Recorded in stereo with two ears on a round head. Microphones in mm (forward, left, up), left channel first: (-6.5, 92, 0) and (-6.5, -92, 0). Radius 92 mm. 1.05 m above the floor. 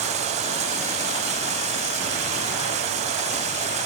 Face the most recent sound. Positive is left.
turn(degrees=-35)  # may be behind; listen again after turning